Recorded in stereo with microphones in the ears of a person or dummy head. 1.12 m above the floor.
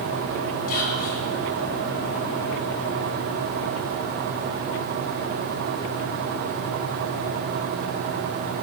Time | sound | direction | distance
0.7 | whispering | 55° left (ahead or behind) | 6 m